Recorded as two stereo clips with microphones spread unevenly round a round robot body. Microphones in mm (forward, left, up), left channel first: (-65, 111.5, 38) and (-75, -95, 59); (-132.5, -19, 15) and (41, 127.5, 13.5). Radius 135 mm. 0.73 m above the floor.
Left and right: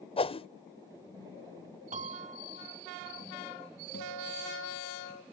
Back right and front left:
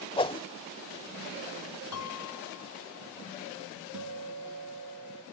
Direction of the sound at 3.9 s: 35° left.